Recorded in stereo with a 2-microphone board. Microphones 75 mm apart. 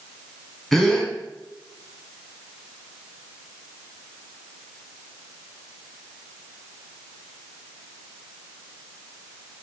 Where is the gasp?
5° left (ahead or behind), 2 m.